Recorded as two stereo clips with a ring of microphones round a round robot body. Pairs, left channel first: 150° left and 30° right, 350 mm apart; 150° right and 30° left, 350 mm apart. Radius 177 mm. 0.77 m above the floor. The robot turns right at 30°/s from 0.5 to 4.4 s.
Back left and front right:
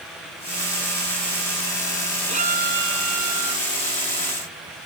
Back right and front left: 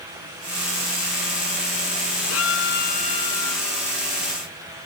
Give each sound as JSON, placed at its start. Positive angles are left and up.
{"t": 2.3, "sound": "a violin", "azimuth_deg": -100}